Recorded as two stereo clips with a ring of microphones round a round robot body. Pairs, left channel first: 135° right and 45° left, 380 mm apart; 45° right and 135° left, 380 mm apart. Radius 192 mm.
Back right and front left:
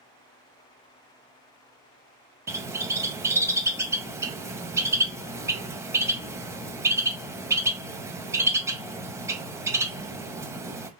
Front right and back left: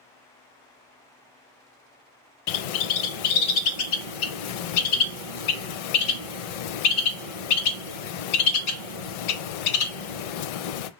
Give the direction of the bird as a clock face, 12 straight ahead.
1 o'clock.